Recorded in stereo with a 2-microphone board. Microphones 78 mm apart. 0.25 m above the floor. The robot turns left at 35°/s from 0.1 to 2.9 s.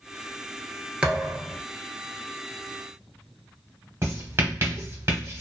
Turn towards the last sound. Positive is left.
turn(degrees=-35)  # may be behind; listen again after turning